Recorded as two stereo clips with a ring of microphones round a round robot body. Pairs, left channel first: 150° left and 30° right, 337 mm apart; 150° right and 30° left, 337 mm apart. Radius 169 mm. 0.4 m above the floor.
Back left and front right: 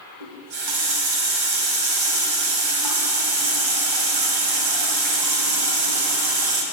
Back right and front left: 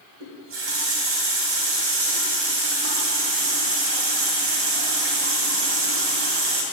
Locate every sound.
0.2 s a running tap: 20° right, 1.9 m